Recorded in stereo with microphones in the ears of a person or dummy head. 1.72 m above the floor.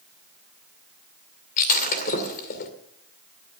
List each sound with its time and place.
1.6 s breaking glass: 55° left (ahead or behind), 2.5 m